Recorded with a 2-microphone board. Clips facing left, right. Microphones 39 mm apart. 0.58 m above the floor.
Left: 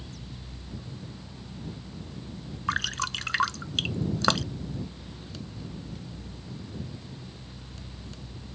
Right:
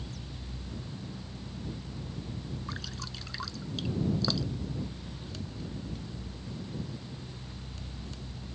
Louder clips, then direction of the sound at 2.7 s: Left 12 dB; 85° left.